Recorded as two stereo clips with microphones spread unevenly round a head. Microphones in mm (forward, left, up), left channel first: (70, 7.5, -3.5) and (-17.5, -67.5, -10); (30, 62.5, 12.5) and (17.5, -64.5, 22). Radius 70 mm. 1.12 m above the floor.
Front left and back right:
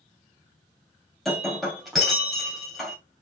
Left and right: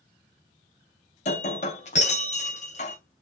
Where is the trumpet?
No trumpet in this recording.